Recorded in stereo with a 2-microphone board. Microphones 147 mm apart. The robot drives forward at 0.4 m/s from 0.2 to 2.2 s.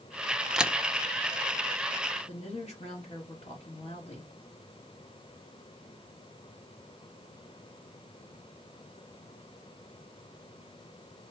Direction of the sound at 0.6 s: 5° right (ahead or behind).